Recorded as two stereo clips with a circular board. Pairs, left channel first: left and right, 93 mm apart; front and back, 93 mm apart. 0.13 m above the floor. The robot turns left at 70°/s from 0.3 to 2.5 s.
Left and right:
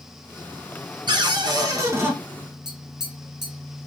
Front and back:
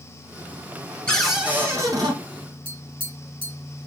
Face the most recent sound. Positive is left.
turn(degrees=-170)